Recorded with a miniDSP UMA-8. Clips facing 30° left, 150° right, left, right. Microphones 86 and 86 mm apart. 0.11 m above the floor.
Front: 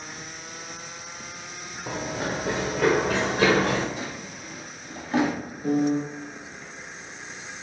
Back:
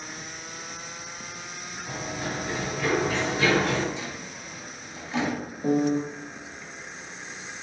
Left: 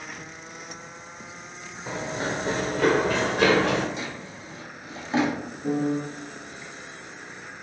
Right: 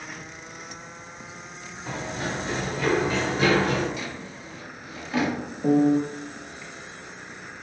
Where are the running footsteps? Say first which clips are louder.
Front 4 dB, left 2 dB; 15° left, 0.9 m; by 3.9 s 75° left, 1.4 m.